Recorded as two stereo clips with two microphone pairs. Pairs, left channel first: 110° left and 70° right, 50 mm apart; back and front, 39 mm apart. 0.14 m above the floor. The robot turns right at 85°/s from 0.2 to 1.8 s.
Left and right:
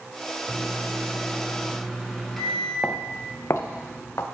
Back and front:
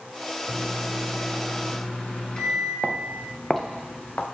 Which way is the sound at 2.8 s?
50° left.